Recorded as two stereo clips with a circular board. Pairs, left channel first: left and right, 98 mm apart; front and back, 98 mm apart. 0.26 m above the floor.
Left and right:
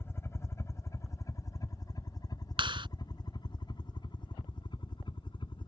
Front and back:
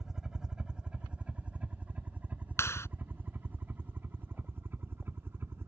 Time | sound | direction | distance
0.0 | a helicopter | 105° left | ?
2.6 | a clap | 60° right | ?